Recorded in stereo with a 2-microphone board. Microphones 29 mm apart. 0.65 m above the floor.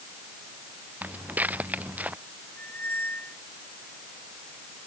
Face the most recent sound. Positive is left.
turn(degrees=85)